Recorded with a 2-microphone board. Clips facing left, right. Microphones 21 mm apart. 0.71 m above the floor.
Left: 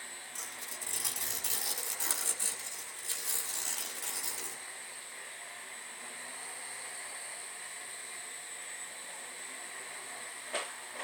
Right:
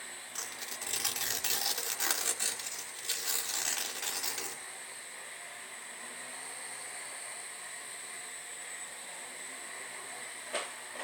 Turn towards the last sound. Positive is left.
turn(degrees=-35)  # may be behind; listen again after turning